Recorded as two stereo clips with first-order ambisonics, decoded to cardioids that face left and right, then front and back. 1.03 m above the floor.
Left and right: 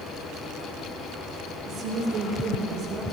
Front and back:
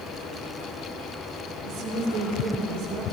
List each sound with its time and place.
1.6 s a woman speaking: 145° right, 2 m; by 3.0 s 150° right, 3 m